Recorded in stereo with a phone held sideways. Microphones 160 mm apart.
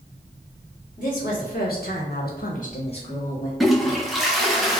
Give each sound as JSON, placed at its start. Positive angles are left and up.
{"t": 1.0, "sound": "a woman speaking", "side_deg": 55, "distance_m": 1.4}
{"t": 3.6, "sound": "a toilet flushing", "side_deg": 0, "distance_m": 0.6}